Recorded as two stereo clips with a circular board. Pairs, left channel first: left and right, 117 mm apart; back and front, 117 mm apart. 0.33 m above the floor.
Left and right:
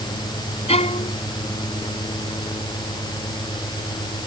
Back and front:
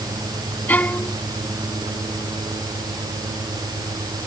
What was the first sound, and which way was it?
A violin, 105° left.